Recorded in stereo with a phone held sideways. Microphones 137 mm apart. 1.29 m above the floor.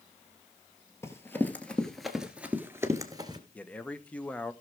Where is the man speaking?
10° left (ahead or behind), 0.8 m.